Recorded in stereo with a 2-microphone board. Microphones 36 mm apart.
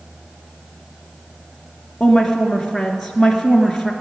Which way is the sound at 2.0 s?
5° left (ahead or behind).